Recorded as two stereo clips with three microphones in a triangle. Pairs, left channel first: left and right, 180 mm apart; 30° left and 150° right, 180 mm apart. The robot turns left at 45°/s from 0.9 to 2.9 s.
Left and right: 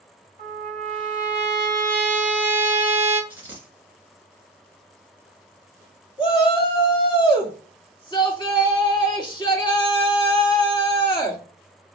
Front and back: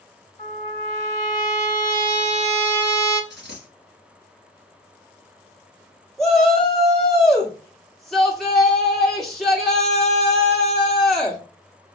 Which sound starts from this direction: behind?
A dropped coin, at 3.3 s.